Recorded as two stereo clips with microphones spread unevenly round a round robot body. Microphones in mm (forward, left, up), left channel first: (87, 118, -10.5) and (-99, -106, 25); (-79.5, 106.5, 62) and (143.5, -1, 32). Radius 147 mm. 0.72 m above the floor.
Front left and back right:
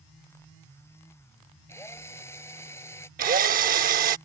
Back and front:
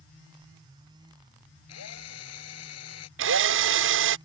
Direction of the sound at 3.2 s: 65° right.